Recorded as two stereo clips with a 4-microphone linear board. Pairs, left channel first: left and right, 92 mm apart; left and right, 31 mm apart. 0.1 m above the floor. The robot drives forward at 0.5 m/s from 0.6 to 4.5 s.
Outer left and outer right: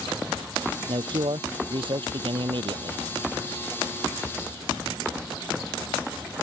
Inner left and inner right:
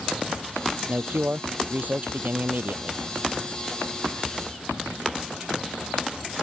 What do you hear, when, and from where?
0.9 s a man speaking: 65° right (ahead or behind)